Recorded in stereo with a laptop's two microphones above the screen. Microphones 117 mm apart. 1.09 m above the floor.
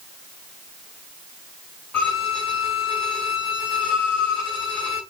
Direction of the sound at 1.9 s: 15° left (ahead or behind).